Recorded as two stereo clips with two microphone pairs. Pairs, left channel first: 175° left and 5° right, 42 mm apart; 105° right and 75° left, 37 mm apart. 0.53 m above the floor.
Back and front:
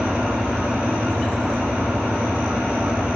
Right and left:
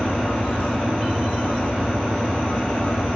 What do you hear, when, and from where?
0.0 s an engine running: 70° right, 3.5 m